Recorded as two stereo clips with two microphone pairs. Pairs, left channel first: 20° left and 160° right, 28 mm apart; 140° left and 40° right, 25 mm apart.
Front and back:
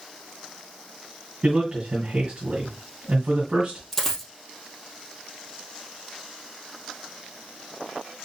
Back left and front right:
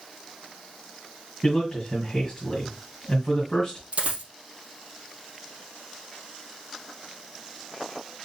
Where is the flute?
I don't hear a flute.